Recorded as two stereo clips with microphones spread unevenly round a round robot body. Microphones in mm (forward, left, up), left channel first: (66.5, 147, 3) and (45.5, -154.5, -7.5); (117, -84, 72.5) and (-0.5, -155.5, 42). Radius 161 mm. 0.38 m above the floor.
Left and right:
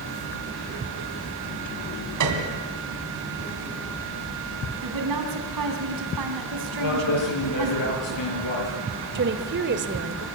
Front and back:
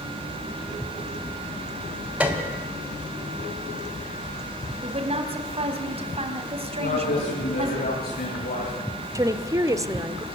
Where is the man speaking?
70° left, 9.5 m.